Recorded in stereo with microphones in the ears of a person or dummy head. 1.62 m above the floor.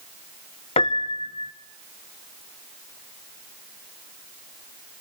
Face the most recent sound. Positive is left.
turn(degrees=30)  # may be behind; listen again after turning